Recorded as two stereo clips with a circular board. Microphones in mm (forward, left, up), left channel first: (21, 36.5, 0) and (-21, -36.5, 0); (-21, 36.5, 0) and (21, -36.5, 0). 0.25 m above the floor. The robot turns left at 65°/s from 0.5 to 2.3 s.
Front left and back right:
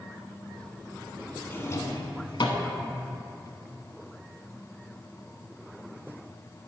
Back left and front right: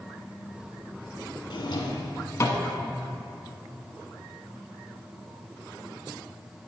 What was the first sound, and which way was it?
A drawer, 125° left.